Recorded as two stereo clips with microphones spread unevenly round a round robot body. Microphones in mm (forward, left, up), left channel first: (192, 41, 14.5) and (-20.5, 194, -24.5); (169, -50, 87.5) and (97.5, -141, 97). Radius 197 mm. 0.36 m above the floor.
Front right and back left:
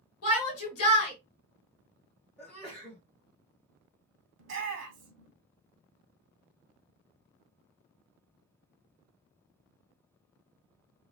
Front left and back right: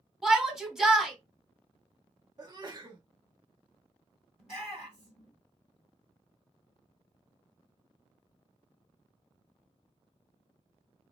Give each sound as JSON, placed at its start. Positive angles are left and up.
{"t": 0.2, "sound": "a shout", "azimuth_deg": -35, "distance_m": 1.5}
{"t": 2.4, "sound": "a sneeze", "azimuth_deg": -135, "distance_m": 1.1}
{"t": 4.4, "sound": "a shout", "azimuth_deg": 140, "distance_m": 2.0}